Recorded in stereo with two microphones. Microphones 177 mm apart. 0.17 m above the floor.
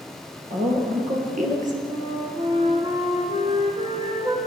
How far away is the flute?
About 3 m.